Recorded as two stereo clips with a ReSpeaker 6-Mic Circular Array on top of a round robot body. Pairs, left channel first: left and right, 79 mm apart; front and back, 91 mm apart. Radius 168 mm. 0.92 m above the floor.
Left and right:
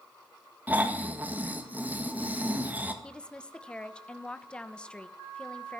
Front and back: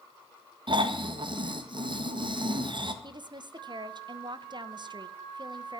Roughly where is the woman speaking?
Behind.